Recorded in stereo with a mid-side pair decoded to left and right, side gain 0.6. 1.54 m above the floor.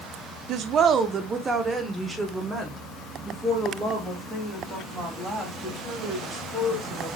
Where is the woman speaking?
60° right, 0.6 m; by 7.1 s 5° right, 3.5 m.